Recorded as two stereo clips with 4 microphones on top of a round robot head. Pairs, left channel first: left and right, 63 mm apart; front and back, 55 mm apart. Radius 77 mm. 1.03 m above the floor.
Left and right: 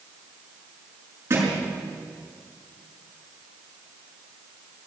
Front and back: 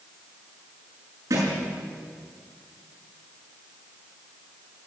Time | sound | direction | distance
1.3 | a thud | 140° right | 6 m